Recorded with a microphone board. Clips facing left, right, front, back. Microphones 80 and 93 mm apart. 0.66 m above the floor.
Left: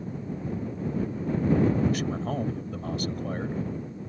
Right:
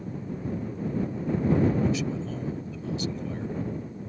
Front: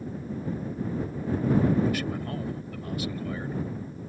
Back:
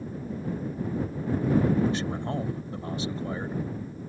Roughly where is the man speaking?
Behind left.